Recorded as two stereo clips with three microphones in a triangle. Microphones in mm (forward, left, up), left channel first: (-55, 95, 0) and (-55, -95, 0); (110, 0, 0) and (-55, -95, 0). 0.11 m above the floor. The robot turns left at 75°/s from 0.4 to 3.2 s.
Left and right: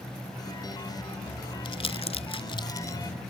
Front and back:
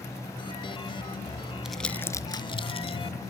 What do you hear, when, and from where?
1.6 s crumpling: 125° left, 0.7 m; by 3.0 s 25° left, 0.7 m